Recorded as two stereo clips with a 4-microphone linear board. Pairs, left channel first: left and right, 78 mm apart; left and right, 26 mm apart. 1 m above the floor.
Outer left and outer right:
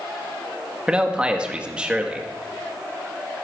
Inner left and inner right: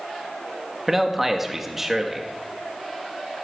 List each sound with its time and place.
0.9 s a man speaking: 15° right (ahead or behind), 1.7 m